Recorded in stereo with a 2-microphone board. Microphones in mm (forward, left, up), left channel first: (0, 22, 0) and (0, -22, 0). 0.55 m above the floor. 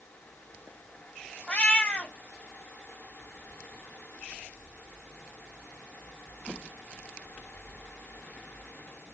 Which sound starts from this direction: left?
A cat meowing, at 1.5 s.